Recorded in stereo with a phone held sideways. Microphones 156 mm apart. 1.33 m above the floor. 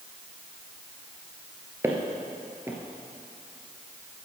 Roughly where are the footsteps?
Centre.